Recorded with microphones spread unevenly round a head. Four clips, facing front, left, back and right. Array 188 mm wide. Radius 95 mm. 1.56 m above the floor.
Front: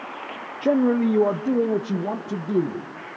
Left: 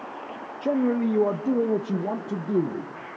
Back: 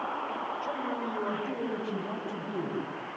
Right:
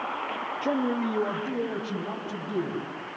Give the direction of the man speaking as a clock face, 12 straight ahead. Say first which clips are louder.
Left 4 dB, front 13 dB; 12 o'clock.